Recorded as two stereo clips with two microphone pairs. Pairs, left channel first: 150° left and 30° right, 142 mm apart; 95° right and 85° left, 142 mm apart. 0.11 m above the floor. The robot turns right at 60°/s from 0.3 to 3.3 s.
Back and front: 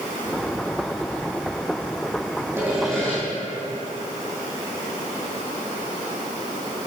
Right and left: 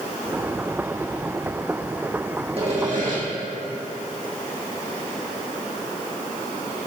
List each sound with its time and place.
2.6 s sawing: 40° left, 4 m; by 3.2 s 80° left, 4 m